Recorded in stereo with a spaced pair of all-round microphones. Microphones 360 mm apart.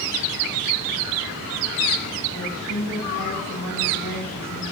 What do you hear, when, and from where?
2.4 s a woman speaking: 90° left, 6.5 m